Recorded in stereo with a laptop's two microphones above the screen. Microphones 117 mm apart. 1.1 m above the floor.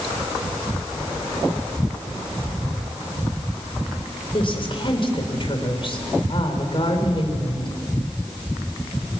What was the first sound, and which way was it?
A woman speaking, 45° left (ahead or behind).